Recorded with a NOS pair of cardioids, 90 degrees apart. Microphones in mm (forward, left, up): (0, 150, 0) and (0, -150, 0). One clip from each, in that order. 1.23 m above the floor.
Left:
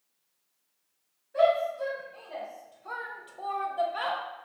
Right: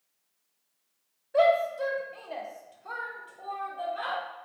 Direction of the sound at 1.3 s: 50° right.